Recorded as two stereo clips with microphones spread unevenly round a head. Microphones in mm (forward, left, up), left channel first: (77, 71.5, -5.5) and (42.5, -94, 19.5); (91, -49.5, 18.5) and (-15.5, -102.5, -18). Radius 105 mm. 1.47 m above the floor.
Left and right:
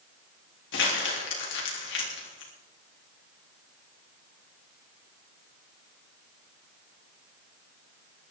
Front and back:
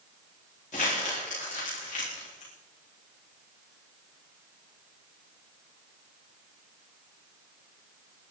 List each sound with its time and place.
0.7 s crumpling: 85° left, 3.5 m